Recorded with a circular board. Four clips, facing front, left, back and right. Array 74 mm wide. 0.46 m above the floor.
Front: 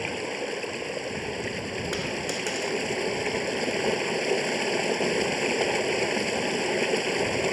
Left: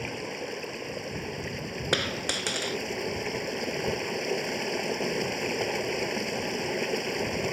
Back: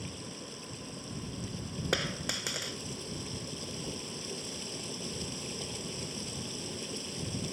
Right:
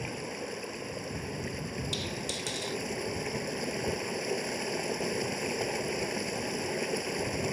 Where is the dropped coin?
100° left.